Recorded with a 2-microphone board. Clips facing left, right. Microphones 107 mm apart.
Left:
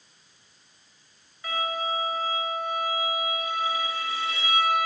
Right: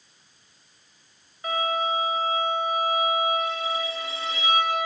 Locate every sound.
1.4 s a violin: 25° right (ahead or behind), 1.4 m